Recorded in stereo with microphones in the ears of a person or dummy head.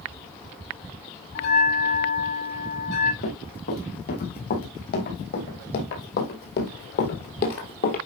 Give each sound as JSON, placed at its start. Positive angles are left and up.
{"t": 1.4, "sound": "a bell", "side_deg": 60, "distance_m": 6.0}
{"t": 3.2, "sound": "running footsteps", "side_deg": 50, "distance_m": 5.5}